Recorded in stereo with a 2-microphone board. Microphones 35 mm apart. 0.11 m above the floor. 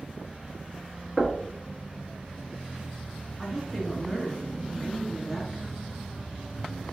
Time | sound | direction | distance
1.2 | knocking | 10° right (ahead or behind) | 1.3 m
3.4 | a woman speaking | 10° right (ahead or behind) | 1.3 m